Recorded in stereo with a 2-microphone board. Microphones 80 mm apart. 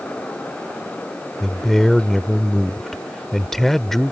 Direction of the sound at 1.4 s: 5° left (ahead or behind).